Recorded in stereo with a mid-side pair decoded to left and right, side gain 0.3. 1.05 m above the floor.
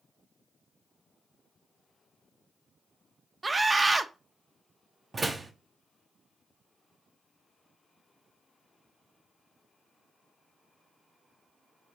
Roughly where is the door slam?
Ahead right.